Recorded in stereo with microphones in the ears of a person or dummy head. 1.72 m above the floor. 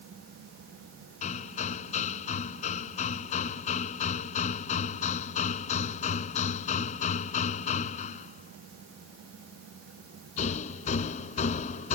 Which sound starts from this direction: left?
Hammering, at 1.2 s.